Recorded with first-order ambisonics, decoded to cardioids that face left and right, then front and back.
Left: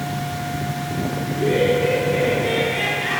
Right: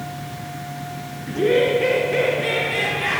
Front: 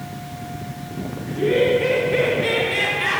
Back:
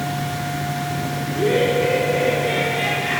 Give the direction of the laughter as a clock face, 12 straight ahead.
4 o'clock.